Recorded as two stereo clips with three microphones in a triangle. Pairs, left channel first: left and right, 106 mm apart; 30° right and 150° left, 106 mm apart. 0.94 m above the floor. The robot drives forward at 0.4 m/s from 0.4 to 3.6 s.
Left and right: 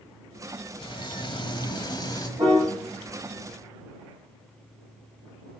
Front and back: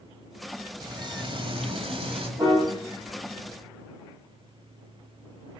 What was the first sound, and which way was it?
Frying, 115° left.